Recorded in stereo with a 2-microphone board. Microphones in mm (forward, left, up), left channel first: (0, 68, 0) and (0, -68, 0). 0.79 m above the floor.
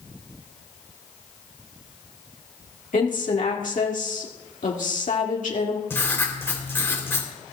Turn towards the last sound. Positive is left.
turn(degrees=15)  # may be behind; listen again after turning